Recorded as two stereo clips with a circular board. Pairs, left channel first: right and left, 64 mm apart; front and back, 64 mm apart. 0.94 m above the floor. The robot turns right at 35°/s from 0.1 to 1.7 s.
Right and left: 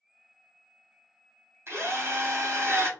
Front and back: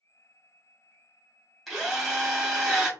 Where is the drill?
90° left, 1.1 m; by 2.9 s 95° left, 1.1 m.